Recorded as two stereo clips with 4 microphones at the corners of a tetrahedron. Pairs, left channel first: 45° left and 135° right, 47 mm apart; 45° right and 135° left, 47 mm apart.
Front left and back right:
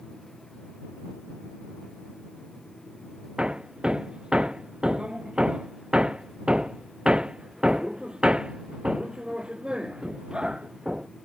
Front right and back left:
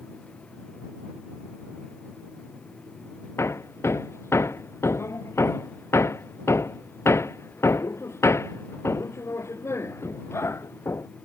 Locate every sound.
3.4 s hammering: 65° right